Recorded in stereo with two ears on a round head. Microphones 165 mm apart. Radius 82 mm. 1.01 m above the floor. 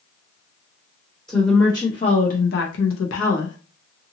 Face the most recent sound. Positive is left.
turn(degrees=70)  # may be behind; listen again after turning